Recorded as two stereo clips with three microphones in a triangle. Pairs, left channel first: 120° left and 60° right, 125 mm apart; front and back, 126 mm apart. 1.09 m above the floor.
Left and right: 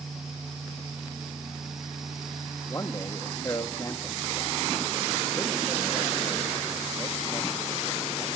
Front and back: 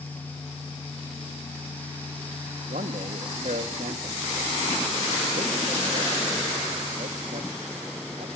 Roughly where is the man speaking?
Behind.